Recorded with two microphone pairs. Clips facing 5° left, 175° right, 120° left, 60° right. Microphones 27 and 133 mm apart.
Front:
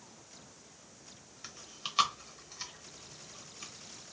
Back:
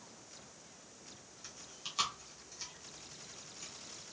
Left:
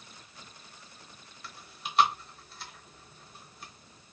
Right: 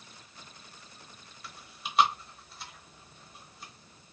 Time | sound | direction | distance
1.4 | chewing | 25° left | 0.9 m